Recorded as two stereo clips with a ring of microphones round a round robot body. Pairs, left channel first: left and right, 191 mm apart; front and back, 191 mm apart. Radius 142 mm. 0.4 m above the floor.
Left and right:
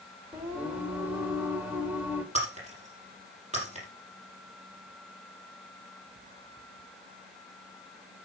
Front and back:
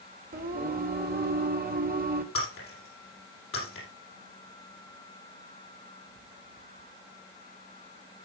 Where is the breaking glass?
35° right, 5.5 m.